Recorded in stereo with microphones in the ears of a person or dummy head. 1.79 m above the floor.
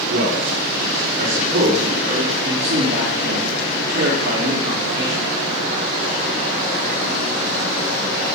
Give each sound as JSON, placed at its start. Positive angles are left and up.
{"t": 0.1, "sound": "a man speaking", "side_deg": -65, "distance_m": 4.0}
{"t": 2.4, "sound": "a man speaking", "side_deg": -60, "distance_m": 3.5}